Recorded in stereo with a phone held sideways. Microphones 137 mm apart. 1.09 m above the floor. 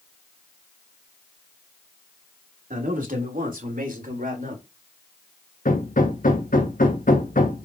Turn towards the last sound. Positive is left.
turn(degrees=80)